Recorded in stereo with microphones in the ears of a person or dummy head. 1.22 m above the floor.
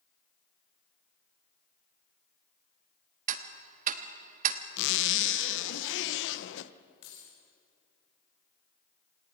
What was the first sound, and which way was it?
Ticking, 45° right (ahead or behind).